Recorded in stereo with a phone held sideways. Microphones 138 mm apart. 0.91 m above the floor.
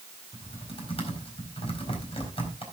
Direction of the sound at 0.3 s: 50° left (ahead or behind).